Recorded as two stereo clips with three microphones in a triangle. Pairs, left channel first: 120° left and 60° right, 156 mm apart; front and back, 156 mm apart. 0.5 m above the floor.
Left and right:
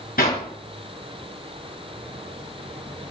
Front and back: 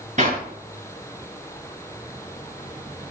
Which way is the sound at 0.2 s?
140° left.